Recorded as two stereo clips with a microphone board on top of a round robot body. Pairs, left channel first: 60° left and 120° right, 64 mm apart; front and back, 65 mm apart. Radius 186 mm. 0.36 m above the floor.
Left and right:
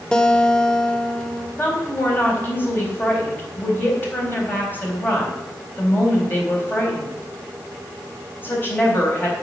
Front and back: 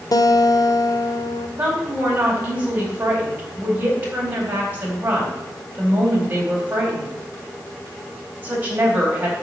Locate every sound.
0.1 s a guitar: 15° right, 1.0 m
1.6 s a woman speaking: 115° left, 4 m